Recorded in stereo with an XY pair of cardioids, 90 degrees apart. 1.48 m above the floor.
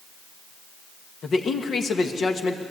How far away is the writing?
No writing in this recording.